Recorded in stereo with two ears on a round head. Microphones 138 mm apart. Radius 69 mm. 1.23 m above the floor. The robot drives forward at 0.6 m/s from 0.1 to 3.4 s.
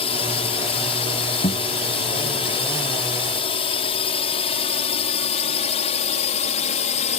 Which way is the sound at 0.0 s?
40° left (ahead or behind).